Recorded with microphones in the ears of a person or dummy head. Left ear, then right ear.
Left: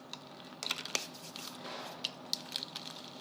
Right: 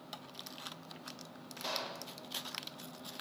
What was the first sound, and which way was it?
A gunshot, 60° right (ahead or behind).